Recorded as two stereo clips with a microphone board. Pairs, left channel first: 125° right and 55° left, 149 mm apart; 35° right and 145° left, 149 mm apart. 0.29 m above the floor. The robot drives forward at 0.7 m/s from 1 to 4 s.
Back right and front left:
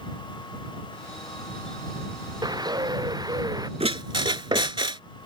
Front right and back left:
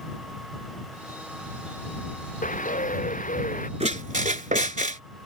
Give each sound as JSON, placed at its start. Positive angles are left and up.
{"t": 2.4, "sound": "a bird", "azimuth_deg": -5}
{"t": 3.8, "sound": "a squeak", "azimuth_deg": 105}